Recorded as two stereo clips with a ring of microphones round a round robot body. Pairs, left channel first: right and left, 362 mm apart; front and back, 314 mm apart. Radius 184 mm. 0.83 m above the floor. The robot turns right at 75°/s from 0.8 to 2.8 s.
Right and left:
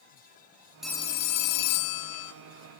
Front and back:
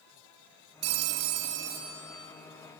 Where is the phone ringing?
Straight behind, 0.5 m; by 2.3 s 70° right, 0.5 m.